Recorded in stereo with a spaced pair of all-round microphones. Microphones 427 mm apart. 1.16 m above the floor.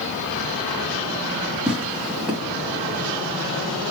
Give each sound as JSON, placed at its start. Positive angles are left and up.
{"t": 1.7, "sound": "tearing paper", "side_deg": 0, "distance_m": 1.7}